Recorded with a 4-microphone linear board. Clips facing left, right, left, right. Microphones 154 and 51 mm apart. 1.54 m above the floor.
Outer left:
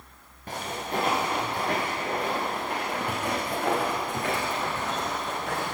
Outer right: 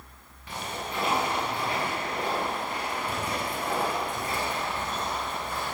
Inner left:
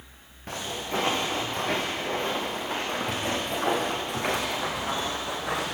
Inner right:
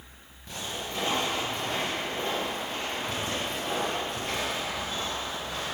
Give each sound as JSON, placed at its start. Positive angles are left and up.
{"t": 0.5, "sound": "footsteps", "side_deg": 45, "distance_m": 9.5}